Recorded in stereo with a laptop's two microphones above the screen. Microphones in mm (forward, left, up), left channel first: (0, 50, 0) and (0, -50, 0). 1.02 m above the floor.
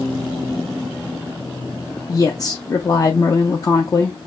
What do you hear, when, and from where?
2.1 s a woman speaking: 35° left (ahead or behind), 0.7 m